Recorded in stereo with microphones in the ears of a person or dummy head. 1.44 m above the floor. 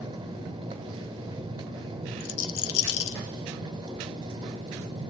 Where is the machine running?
25° right (ahead or behind), 1.7 m.